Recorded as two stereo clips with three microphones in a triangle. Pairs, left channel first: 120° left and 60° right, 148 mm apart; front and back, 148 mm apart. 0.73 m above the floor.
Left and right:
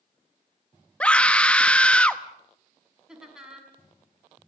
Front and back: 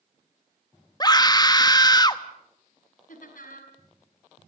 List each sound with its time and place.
1.0 s a scream: 40° left, 0.9 m
3.1 s laughter: 25° left, 5.5 m